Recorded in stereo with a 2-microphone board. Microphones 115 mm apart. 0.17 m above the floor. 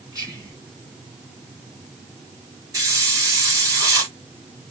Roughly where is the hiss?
Right.